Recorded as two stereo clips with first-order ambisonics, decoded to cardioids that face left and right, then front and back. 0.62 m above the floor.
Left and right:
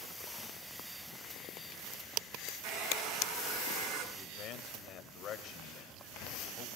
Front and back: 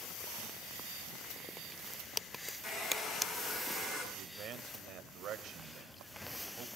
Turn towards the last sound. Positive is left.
turn(degrees=135)